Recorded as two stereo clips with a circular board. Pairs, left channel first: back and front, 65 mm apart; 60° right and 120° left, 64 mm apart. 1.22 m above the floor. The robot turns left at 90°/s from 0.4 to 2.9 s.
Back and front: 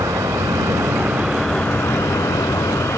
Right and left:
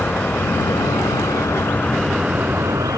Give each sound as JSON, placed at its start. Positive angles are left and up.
{"t": 0.0, "sound": "an insect", "azimuth_deg": 0}